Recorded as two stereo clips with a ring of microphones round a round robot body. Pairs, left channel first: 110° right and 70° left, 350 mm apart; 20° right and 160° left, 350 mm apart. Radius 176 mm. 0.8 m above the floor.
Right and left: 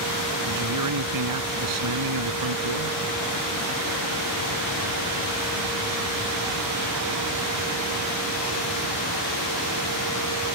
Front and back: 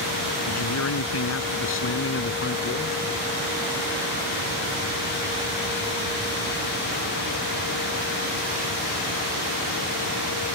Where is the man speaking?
25° left; by 3.0 s 40° left.